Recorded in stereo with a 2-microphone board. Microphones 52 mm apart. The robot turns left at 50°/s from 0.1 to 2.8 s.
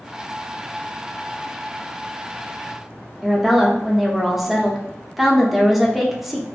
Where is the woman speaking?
5° right (ahead or behind), 0.5 m.